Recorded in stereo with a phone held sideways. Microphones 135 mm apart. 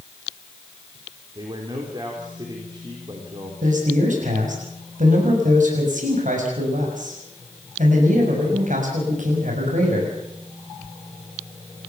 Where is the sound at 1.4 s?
35° right (ahead or behind), 3.5 m.